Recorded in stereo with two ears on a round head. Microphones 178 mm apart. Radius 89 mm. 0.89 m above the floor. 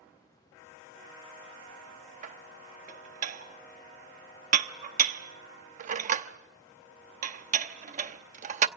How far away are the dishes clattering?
About 0.9 m.